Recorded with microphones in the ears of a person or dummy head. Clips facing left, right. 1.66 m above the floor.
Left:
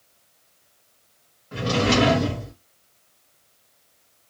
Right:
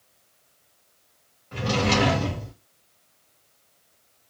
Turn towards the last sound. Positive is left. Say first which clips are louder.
# left 3 dB
turn(degrees=10)  # may be behind; listen again after turning